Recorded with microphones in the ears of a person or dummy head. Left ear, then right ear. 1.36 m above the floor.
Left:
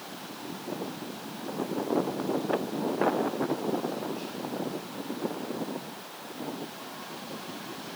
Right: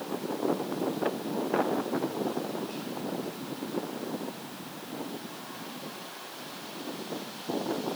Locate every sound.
Only background noise.